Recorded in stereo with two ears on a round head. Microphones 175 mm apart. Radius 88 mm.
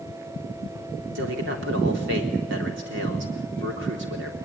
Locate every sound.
1.1 s a man speaking: 65° right (ahead or behind), 3.5 m